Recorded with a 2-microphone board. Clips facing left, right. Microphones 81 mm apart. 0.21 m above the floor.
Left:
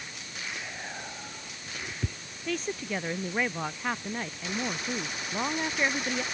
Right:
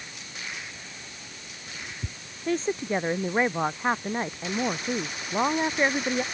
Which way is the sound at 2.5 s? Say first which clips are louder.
Right 6 dB; 35° right (ahead or behind).